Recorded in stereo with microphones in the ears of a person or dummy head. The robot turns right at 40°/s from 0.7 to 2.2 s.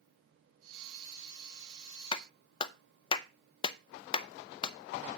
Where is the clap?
25° left (ahead or behind), 0.7 m; by 4.8 s 30° left (ahead or behind), 0.7 m.